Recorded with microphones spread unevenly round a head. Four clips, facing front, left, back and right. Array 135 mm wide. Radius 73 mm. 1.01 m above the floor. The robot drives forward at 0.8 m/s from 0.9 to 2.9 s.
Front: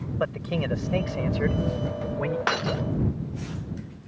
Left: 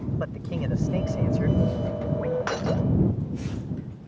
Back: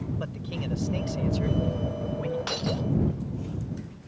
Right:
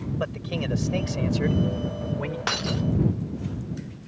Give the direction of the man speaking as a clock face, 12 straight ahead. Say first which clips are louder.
Right 1 dB, front 7 dB; 1 o'clock.